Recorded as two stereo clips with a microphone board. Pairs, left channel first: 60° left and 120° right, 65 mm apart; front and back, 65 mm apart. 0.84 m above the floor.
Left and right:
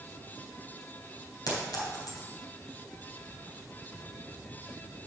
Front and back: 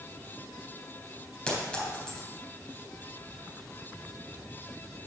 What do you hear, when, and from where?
1.5 s a clink: 80° left, 3.5 m